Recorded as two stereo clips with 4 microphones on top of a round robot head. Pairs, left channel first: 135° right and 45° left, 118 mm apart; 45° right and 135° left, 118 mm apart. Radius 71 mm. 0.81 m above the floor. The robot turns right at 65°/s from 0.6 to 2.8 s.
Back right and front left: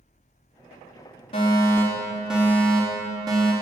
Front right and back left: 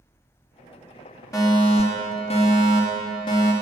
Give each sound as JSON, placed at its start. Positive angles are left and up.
{"t": 1.3, "sound": "a fire alarm", "azimuth_deg": -100, "distance_m": 3.0}